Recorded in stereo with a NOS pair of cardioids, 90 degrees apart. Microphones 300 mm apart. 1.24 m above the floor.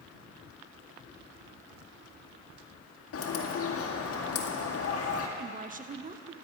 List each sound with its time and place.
3.1 s a bird: 50° left, 2.0 m
5.4 s a woman speaking: 25° right, 1.0 m